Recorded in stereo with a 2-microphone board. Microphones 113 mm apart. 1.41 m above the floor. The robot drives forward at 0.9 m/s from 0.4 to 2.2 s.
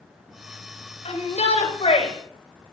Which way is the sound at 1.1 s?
75° left (ahead or behind).